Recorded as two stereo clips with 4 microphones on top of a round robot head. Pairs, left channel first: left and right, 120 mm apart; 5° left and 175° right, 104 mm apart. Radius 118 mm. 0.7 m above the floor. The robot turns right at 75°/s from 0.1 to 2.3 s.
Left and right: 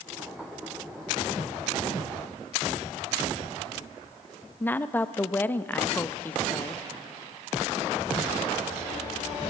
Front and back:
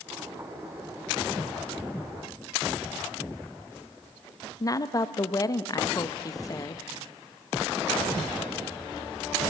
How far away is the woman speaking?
About 0.8 m.